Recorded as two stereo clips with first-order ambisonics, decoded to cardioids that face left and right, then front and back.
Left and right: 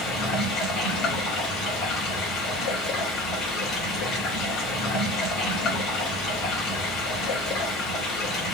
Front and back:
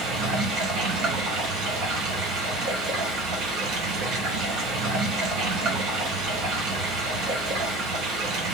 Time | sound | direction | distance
0.0 | running water | 145° left | 3 m